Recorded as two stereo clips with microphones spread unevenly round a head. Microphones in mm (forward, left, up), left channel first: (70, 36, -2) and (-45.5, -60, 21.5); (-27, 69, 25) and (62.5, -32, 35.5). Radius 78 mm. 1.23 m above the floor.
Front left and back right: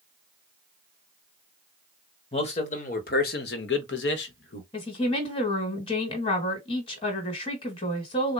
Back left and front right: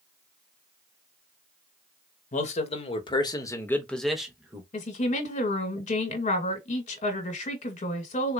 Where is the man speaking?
95° left, 1.3 m; by 4.6 s 25° left, 1.2 m.